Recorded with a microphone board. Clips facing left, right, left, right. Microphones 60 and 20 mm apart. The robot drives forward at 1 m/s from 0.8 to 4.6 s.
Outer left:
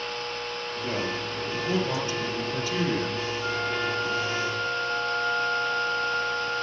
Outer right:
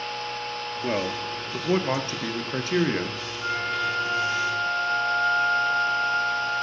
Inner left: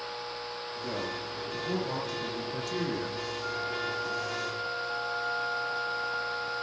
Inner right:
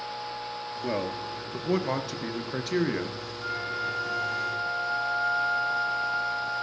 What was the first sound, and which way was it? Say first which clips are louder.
A man speaking: outer right 3 dB, inner right 5 dB; 40° right (ahead or behind).